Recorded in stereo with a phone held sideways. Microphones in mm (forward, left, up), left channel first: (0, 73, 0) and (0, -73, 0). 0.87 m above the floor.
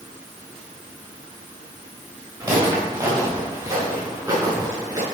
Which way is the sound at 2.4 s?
25° right (ahead or behind).